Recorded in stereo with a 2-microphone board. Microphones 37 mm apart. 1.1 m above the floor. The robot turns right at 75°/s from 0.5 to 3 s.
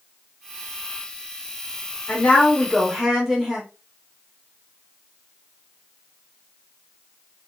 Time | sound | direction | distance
2.1 | a woman speaking | 120° left | 2.5 m